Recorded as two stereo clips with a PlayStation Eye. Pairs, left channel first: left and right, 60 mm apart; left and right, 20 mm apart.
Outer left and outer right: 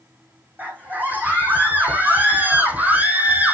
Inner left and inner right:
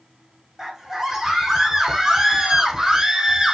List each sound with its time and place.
0.6 s a scream: 25° right (ahead or behind), 7 m